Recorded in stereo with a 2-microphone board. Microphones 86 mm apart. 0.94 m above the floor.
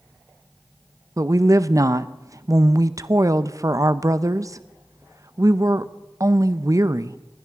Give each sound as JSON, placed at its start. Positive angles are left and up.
{"t": 1.2, "sound": "a woman speaking", "side_deg": -40, "distance_m": 0.6}